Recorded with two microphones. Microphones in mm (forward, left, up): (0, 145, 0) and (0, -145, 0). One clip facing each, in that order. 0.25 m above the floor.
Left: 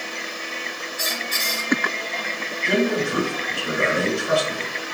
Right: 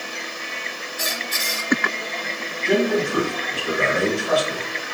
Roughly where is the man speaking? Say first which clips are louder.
Right 2 dB; left.